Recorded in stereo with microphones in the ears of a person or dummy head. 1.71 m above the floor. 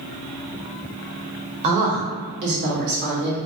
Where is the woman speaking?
35° right (ahead or behind), 0.8 m; by 3.4 s 55° right (ahead or behind), 1.2 m.